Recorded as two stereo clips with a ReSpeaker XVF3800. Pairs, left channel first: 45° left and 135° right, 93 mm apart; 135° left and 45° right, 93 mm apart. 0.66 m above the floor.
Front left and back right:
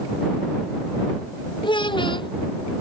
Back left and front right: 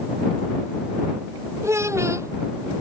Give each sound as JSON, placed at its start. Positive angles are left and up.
{"t": 1.6, "sound": "a child speaking", "azimuth_deg": 15}